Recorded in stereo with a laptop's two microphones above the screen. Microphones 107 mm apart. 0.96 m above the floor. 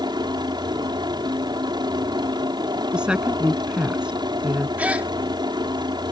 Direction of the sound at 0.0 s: 40° right (ahead or behind).